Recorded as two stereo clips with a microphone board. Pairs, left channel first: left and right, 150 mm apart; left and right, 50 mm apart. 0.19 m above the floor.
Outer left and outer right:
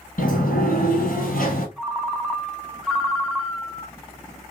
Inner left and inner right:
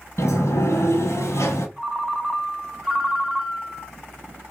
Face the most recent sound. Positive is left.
turn(degrees=0)  # may be behind; listen again after turning